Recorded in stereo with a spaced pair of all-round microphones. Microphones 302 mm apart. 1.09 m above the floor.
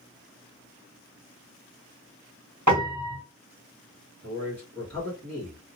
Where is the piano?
70° right (ahead or behind), 1.5 m.